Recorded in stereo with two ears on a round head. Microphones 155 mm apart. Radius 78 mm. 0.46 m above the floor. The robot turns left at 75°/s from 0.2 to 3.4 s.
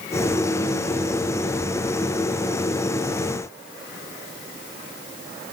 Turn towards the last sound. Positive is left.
No sound to turn to.